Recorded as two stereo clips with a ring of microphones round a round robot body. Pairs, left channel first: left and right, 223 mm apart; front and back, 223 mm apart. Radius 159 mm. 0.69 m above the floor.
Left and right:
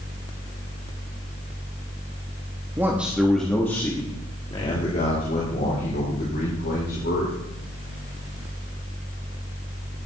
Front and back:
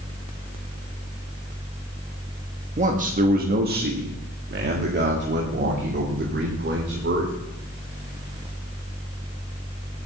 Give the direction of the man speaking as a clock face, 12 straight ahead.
5 o'clock.